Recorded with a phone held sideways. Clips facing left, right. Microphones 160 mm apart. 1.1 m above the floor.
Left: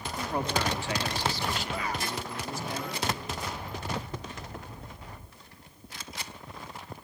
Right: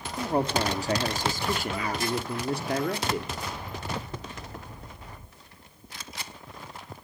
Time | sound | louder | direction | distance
0.2 | a man speaking | right 5 dB | 30° right (ahead or behind) | 2 m